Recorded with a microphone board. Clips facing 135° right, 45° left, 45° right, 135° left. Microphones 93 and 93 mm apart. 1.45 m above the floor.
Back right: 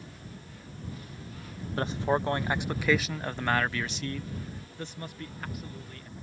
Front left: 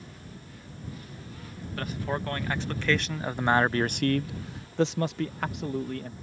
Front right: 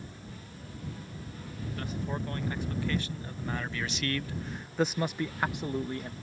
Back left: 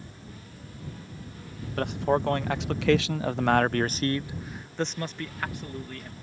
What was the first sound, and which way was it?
A man speaking, 160° left.